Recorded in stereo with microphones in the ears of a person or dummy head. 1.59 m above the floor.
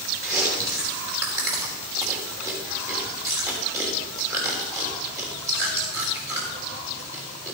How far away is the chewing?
About 3 m.